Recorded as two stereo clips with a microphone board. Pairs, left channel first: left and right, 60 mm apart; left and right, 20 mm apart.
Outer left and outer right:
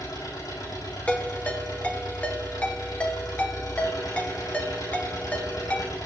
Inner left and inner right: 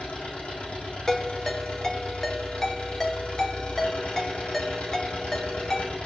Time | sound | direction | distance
0.0 | an engine running | 85° left | 6.5 m
1.1 | a ringtone | 25° left (ahead or behind) | 1.8 m